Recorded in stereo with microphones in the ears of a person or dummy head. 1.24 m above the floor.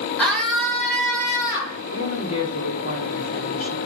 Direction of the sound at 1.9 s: 80° left.